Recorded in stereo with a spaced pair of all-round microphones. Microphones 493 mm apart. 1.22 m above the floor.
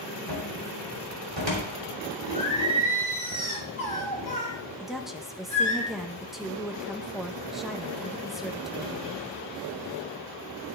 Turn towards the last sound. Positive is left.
turn(degrees=0)  # may be behind; listen again after turning